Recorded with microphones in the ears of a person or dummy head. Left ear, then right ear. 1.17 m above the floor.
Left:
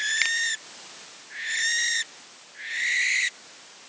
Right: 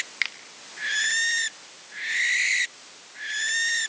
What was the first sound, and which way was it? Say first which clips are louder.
A finger snap: left 1 dB; 5° left (ahead or behind).